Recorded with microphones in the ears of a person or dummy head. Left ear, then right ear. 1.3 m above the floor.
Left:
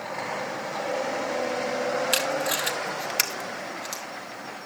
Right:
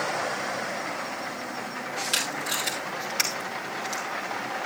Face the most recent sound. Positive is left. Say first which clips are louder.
# left 3 dB
turn(degrees=40)  # may be behind; listen again after turning